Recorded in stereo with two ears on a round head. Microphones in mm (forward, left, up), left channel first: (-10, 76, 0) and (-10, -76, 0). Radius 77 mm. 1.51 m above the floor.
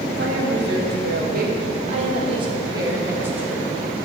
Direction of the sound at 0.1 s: 80° right.